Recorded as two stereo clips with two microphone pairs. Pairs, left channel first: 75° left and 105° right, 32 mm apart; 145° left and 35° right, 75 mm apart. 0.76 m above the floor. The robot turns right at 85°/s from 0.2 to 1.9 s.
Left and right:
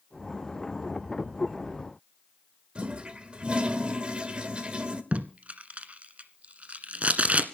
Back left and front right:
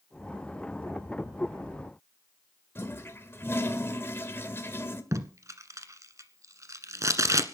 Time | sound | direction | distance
2.8 | a toilet flushing | 160° right | 1.6 m
5.1 | tape being pulled | 75° right | 1.3 m